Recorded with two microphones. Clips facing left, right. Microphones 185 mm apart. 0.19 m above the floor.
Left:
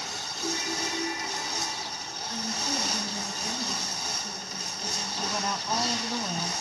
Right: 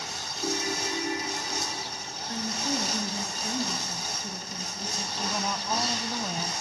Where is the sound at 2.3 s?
40° right (ahead or behind), 3 m.